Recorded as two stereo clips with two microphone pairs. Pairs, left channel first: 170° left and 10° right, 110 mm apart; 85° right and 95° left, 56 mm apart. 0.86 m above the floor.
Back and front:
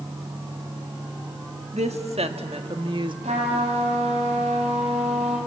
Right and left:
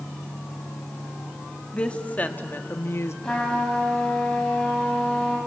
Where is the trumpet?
10° right, 5.5 m.